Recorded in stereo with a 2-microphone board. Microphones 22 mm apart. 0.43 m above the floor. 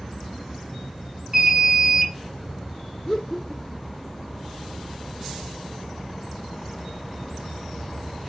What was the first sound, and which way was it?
An alarm, 25° right (ahead or behind).